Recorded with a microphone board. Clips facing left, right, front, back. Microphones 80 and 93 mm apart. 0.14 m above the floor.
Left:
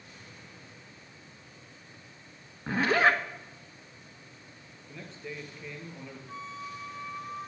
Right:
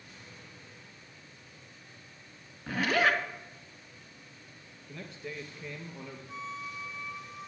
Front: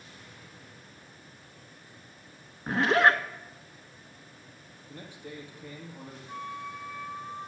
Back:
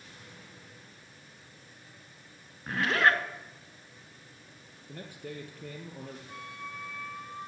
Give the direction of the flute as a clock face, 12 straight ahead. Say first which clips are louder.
Even, front 5 dB; 10 o'clock.